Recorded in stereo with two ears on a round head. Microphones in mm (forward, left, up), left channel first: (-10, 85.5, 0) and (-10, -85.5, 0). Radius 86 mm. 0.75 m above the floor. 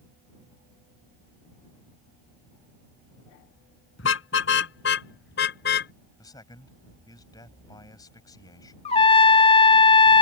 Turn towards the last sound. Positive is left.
turn(degrees=30)  # may be behind; listen again after turning